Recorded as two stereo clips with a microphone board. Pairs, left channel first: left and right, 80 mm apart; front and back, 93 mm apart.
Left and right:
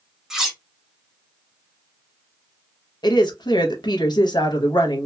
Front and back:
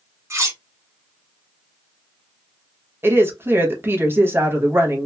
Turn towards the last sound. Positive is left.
turn(degrees=115)